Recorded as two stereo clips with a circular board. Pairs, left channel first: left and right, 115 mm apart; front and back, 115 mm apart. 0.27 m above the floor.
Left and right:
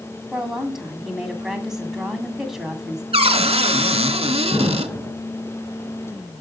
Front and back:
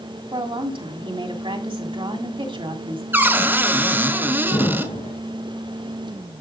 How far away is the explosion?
About 1.6 m.